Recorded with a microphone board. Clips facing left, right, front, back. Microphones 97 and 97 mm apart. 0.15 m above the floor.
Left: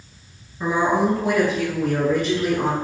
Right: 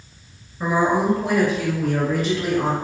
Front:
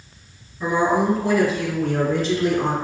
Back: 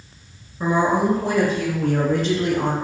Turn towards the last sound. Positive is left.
turn(degrees=-175)